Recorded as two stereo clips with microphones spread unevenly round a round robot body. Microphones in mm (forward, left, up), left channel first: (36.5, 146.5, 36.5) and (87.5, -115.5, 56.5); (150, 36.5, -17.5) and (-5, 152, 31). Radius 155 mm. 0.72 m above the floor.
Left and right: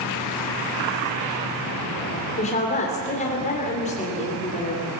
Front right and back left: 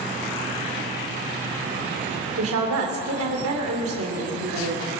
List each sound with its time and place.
2.4 s a woman speaking: 165° left, 3 m